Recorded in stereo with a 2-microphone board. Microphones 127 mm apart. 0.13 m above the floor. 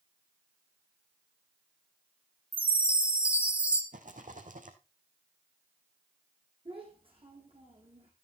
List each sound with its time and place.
2.5 s a chime: 10° right (ahead or behind), 2.5 m
3.9 s a rattle: 75° right (ahead or behind), 2.0 m
6.7 s a child speaking: 45° right (ahead or behind), 5.5 m